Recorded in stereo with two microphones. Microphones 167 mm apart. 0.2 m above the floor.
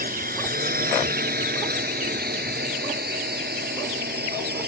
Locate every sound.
0.0 s a drone: 60° right (ahead or behind); by 4.7 s 70° right (ahead or behind)